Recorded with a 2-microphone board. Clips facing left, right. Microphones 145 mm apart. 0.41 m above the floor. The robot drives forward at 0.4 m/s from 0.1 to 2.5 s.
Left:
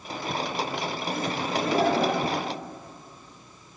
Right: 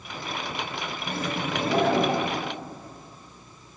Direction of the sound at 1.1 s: 30° right (ahead or behind).